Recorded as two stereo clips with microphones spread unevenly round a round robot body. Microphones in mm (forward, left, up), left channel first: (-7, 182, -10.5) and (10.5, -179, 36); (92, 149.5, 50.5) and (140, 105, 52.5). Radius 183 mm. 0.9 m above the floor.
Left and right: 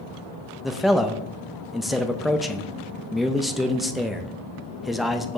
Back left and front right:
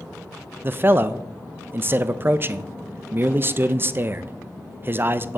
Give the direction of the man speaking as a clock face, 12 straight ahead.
12 o'clock.